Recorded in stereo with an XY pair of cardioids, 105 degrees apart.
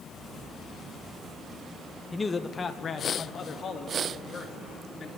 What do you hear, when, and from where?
2.1 s a man speaking: 15° left, 1.0 m; by 5.1 s 45° left, 5 m